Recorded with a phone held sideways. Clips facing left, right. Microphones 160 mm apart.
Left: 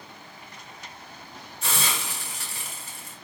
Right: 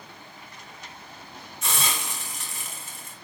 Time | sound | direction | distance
1.6 | a hiss | 35° left (ahead or behind) | 8.5 m